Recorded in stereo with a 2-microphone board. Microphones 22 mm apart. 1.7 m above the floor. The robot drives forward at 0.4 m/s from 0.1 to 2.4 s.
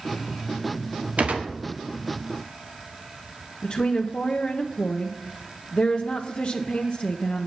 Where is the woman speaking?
45° left (ahead or behind), 0.9 m.